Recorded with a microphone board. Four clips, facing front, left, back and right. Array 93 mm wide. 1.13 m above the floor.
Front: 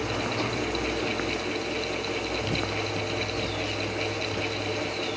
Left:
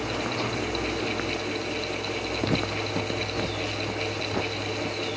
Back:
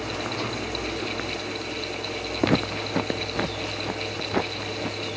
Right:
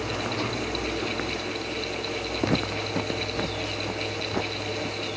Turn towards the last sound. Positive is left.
turn(degrees=-175)